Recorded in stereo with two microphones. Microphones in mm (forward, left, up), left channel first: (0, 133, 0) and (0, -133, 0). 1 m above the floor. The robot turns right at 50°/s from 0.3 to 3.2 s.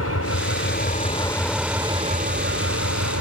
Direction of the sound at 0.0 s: 115° left.